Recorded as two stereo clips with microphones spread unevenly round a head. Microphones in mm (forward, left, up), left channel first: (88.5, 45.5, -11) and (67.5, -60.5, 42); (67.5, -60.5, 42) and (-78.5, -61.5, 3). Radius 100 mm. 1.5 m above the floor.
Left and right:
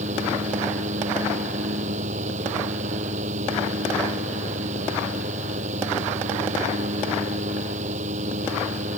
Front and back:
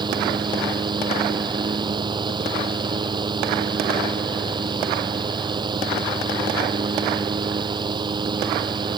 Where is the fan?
120° right.